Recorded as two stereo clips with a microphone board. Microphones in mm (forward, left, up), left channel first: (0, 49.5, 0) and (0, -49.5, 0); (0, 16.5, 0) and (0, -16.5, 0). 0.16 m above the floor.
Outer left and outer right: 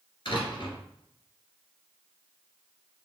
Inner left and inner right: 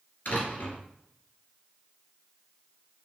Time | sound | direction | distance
0.2 | a door slam | 55° left (ahead or behind) | 2.5 m